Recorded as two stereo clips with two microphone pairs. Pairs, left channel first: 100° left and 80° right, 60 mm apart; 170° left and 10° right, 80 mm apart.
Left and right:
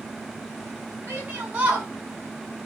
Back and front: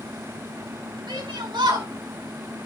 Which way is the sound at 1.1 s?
15° right.